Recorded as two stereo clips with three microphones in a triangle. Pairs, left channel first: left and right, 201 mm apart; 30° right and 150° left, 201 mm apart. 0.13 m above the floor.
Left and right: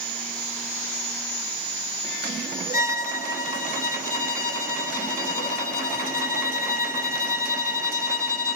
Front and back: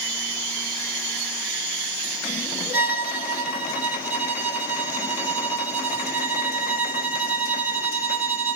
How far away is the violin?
About 1.2 m.